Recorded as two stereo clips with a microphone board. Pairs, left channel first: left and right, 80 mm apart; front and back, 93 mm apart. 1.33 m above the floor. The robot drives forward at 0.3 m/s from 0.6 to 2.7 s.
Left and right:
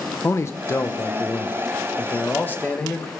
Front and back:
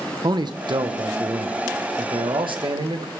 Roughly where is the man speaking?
Behind left.